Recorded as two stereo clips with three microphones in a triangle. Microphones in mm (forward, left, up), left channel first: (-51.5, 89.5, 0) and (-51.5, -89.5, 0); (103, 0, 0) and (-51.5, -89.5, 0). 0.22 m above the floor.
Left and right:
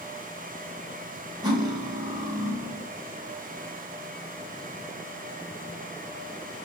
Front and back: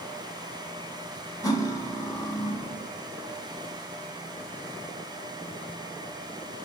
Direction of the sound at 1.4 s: 35° right.